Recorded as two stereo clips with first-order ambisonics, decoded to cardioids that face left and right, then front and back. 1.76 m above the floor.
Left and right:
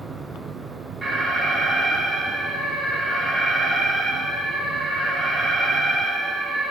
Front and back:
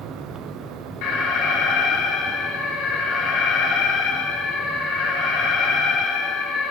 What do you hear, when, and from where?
1.0 s an alarm: 15° right, 3 m